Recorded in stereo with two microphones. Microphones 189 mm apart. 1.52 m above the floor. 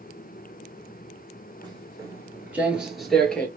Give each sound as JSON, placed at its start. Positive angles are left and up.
{"t": 1.6, "sound": "footsteps", "side_deg": -20, "distance_m": 1.6}